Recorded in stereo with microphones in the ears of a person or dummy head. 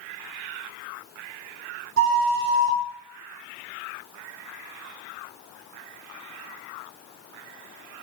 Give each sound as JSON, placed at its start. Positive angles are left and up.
{"t": 2.0, "sound": "a flute", "side_deg": -70, "distance_m": 1.7}